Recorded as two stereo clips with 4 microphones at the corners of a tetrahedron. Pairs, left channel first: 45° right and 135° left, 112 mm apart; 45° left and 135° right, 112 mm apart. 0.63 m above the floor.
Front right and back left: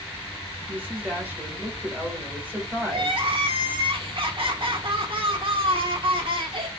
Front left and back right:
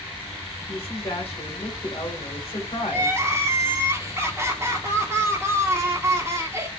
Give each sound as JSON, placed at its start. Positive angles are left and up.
{"t": 0.7, "sound": "a woman speaking", "azimuth_deg": 65, "distance_m": 1.8}
{"t": 2.9, "sound": "crying", "azimuth_deg": 165, "distance_m": 1.0}